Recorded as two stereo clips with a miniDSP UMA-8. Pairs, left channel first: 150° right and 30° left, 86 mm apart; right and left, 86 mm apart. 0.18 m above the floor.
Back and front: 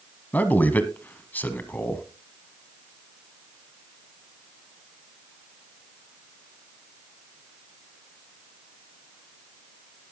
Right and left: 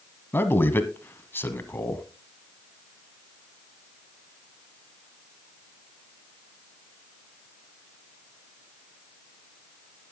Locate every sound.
0.3 s a man speaking: 105° right, 1.2 m